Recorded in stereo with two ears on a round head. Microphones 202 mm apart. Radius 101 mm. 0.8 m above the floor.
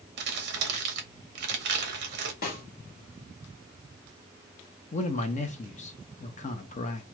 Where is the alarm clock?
I don't hear an alarm clock.